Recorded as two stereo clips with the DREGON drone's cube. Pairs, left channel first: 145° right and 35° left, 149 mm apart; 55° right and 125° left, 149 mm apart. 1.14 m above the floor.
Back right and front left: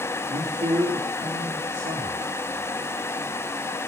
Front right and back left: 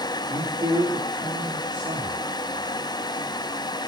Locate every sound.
0.3 s a man speaking: 65° left, 3 m